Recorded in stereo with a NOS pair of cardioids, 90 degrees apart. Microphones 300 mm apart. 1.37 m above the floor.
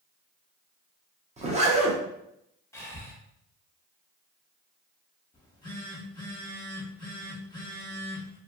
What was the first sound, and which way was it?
A zipper, 20° right.